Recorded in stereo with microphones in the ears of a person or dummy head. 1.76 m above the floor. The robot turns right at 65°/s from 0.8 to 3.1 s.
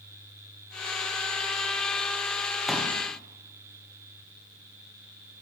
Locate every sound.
2.7 s a pop: centre (ahead or behind), 1.0 m; by 2.9 s 10° left (ahead or behind), 1.0 m